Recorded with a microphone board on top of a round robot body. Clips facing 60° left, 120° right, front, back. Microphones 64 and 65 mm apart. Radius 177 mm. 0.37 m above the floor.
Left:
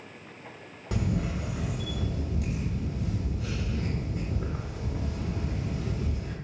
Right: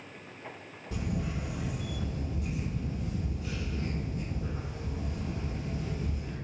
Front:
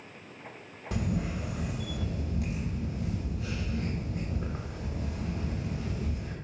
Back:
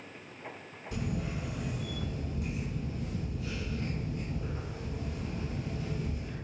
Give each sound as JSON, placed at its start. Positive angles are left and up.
{"t": 0.9, "sound": "a camera shutter", "azimuth_deg": 35, "distance_m": 0.6}